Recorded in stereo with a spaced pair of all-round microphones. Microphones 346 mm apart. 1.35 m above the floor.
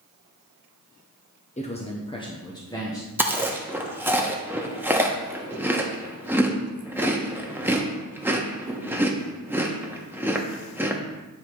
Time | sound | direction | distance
1.6 | a man speaking | 20° left (ahead or behind) | 0.7 m
3.2 | chewing | 5° right (ahead or behind) | 0.9 m